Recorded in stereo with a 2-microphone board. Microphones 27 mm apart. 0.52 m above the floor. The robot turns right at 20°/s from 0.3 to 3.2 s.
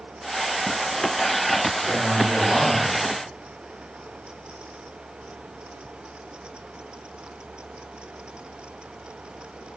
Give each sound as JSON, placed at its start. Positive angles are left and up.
{"t": 1.9, "sound": "a man speaking", "side_deg": 45, "distance_m": 1.8}